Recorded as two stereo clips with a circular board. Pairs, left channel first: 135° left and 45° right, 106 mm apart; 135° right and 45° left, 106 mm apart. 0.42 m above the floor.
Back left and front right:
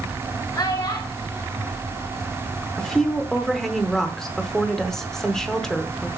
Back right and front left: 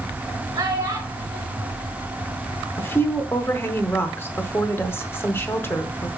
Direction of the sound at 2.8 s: 145° right.